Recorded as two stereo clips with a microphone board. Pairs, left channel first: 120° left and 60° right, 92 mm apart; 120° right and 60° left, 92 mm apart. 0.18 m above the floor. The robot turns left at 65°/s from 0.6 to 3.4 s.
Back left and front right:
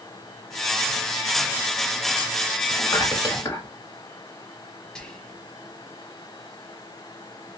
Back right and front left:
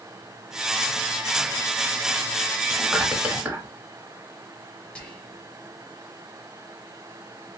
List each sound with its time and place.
2.7 s whispering: 145° left, 1.0 m; by 3.7 s 100° left, 1.0 m
5.0 s whispering: 170° right, 1.1 m